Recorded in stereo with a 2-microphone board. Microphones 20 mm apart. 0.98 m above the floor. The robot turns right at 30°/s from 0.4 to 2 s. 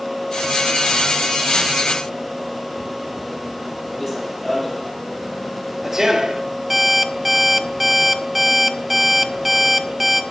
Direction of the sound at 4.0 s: 10° left (ahead or behind).